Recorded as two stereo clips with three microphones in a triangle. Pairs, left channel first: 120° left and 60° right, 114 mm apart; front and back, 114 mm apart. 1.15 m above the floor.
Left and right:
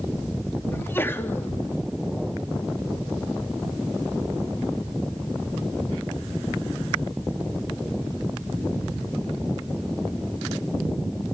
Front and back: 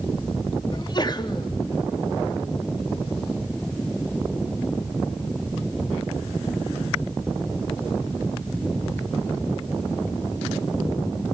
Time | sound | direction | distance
0.7 | a sneeze | 50° left | 3 m